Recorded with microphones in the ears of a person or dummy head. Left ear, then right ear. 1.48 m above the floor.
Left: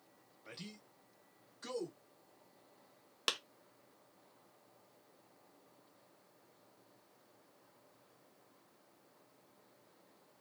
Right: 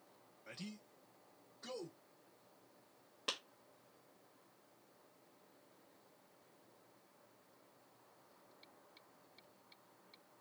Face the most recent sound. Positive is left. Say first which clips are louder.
# left 5 dB
turn(degrees=60)  # may be behind; listen again after turning